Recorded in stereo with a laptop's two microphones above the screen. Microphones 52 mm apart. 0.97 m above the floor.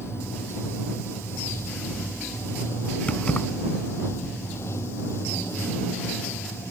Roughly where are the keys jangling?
Left.